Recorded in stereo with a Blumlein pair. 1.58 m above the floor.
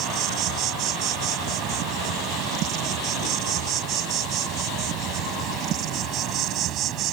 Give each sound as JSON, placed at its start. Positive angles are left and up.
{"t": 0.0, "sound": "an insect", "azimuth_deg": -35}